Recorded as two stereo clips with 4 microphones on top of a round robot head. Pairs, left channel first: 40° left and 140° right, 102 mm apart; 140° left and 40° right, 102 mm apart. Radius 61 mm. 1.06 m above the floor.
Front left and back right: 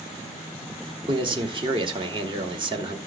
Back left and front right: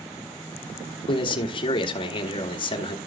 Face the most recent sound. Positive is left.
turn(degrees=180)